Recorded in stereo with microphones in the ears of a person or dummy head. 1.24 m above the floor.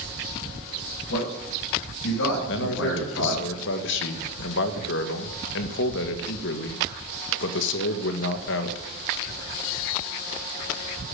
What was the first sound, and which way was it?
A man speaking, 75° left (ahead or behind).